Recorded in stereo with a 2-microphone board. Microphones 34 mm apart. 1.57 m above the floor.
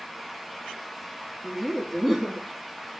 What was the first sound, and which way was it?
Laughter, centre (ahead or behind).